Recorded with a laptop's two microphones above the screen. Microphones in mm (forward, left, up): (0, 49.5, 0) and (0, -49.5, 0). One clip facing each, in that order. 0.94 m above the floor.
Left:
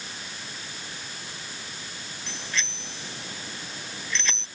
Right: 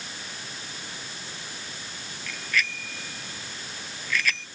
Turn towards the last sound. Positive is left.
turn(degrees=25)  # may be behind; listen again after turning